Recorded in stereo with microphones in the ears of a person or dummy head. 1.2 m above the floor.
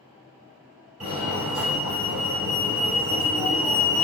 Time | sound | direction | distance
1.0 | a fire alarm | 35° right (ahead or behind) | 1.5 m